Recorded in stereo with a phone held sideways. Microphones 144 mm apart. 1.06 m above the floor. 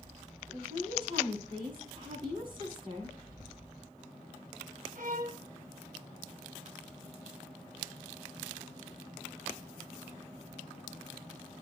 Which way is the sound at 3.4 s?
30° right (ahead or behind).